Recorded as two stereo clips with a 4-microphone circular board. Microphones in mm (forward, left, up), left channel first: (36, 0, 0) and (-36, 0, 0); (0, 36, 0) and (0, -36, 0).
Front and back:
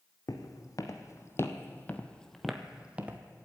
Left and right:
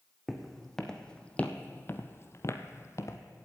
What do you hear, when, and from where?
0.3 s footsteps: straight ahead, 1.5 m; by 3.2 s 120° left, 1.1 m